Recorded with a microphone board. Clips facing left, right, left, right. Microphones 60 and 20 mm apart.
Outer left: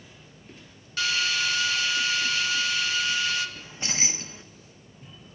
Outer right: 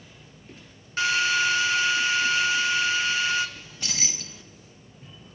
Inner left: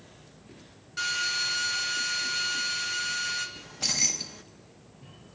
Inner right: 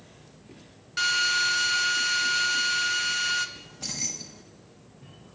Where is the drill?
30° right (ahead or behind), 1.9 m.